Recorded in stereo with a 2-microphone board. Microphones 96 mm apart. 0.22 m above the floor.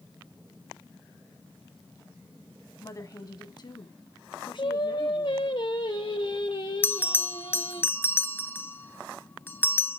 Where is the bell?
20° left (ahead or behind), 0.5 m.